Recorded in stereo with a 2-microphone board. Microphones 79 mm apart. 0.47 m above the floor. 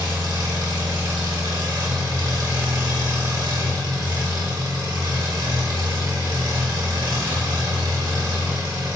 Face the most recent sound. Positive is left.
turn(degrees=-65)  # may be behind; listen again after turning